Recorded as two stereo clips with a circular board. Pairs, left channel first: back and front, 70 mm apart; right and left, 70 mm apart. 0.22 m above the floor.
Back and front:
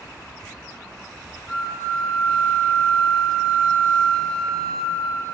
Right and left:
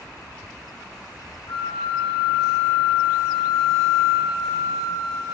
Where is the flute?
110° right, 5 m.